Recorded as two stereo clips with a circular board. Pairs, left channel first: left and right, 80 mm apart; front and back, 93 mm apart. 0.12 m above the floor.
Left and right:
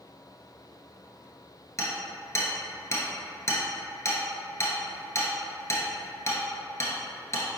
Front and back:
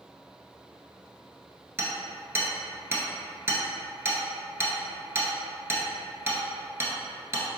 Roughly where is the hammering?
Behind left.